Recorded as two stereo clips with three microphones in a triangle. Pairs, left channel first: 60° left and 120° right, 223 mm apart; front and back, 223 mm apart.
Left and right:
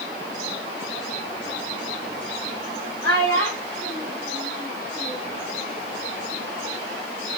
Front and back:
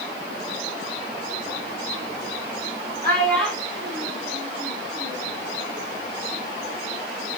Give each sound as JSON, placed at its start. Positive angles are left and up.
{"t": 3.0, "sound": "a child speaking", "azimuth_deg": 130, "distance_m": 0.9}